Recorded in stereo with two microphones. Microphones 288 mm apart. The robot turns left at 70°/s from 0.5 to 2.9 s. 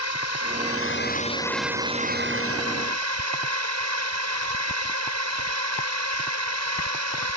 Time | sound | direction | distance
0.0 | a drone | 75° left | ?